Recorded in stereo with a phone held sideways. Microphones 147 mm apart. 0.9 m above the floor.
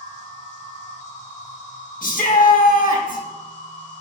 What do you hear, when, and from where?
0.0 s an insect: 55° left (ahead or behind), 1.0 m
2.0 s a shout: 70° left (ahead or behind), 1.2 m